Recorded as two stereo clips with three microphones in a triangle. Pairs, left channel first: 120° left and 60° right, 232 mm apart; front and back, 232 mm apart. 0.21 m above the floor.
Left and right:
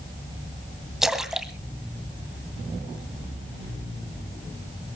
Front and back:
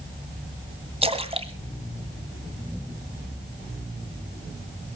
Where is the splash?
145° right, 1.8 m.